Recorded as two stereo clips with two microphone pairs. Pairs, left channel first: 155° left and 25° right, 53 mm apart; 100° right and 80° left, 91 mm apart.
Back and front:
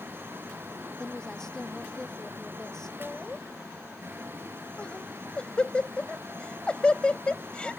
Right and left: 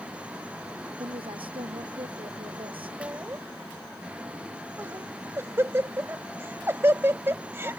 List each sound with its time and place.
1.0 s a woman speaking: 80° left
3.0 s laughter: 105° left